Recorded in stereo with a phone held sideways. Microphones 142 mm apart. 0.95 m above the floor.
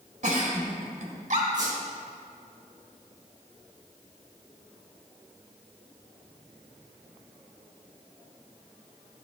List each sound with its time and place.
0.2 s a giggle: 60° right (ahead or behind), 1.7 m
1.5 s a squeak: 30° right (ahead or behind), 3.5 m